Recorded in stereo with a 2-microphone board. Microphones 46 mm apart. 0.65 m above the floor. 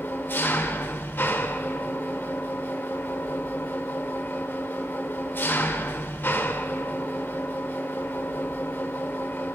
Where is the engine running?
50° left (ahead or behind), 1.4 m.